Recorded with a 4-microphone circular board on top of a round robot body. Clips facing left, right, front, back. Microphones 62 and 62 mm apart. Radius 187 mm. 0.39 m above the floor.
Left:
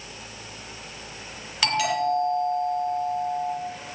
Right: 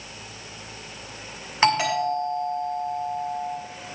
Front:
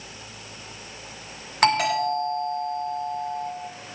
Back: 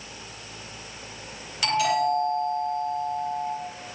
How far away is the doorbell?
About 5.5 m.